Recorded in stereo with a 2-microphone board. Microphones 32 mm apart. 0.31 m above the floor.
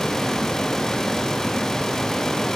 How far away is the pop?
No pop in this recording.